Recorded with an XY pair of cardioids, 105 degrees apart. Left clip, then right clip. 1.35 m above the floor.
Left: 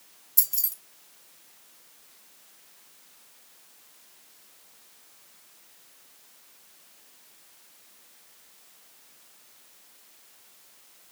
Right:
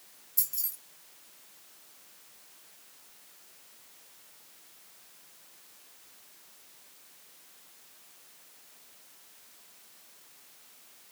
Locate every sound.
0.4 s keys jangling: 50° left, 2 m